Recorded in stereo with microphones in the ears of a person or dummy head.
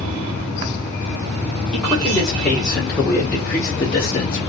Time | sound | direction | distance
1.7 | a man speaking | centre (ahead or behind) | 2.0 m